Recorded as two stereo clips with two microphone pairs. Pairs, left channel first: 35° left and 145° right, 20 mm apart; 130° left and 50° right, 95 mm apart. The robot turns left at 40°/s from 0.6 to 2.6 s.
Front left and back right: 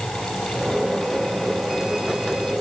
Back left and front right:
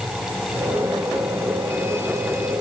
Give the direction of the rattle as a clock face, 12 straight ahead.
I don't hear a rattle.